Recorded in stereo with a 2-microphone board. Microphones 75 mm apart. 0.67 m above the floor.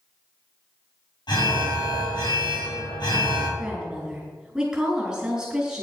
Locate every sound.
1.3 s an alarm: 75° left (ahead or behind), 6 m
3.6 s a woman speaking: 10° right (ahead or behind), 5 m